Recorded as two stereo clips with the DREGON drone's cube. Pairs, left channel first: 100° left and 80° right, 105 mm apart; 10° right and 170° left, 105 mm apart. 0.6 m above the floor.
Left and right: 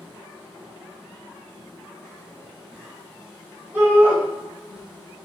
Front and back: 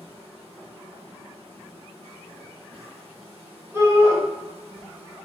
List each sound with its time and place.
0.0 s an insect: 165° left, 1.0 m
3.7 s a shout: 140° right, 1.3 m